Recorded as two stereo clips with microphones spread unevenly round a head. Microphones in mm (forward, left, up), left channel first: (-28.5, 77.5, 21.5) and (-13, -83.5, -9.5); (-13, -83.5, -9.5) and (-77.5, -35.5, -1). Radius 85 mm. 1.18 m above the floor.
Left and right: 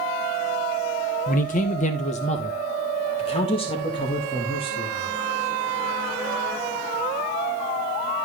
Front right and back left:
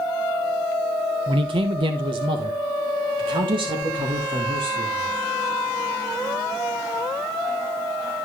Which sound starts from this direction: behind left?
A man speaking, at 1.3 s.